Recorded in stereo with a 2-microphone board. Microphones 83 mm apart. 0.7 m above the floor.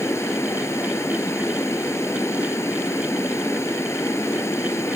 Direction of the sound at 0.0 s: 35° left (ahead or behind).